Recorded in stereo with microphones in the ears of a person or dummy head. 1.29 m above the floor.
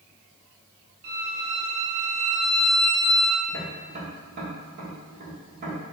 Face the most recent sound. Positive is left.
turn(degrees=-35)  # may be behind; listen again after turning